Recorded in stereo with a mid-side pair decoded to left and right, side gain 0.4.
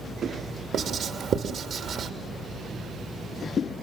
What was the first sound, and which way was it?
Writing, 65° right.